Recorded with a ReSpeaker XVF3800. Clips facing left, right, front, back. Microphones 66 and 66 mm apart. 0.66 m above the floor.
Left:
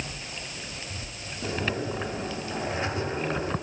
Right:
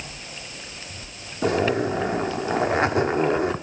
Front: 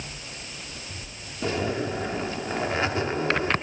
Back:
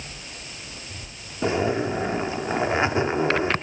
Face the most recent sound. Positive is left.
turn(degrees=-110)